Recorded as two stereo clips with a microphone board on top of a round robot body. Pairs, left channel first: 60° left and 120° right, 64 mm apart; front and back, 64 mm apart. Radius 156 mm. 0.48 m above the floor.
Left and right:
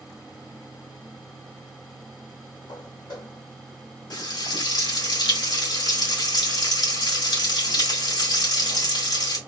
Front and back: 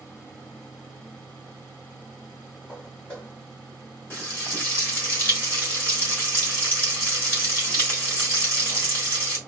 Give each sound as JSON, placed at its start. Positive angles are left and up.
{"t": 2.7, "sound": "footsteps", "azimuth_deg": 70, "distance_m": 2.5}
{"t": 4.1, "sound": "frying", "azimuth_deg": 60, "distance_m": 2.5}